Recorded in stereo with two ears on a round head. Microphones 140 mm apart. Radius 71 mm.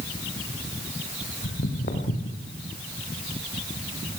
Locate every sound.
1.4 s footsteps: 60° left (ahead or behind), 3 m; by 2.5 s 55° left (ahead or behind), 3.5 m